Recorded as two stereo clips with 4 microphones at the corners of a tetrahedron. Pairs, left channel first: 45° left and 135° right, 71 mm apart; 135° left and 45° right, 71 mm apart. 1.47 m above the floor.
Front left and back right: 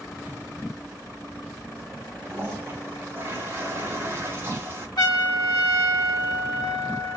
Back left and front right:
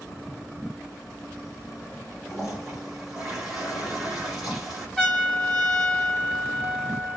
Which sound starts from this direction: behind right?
A toilet flushing, at 2.2 s.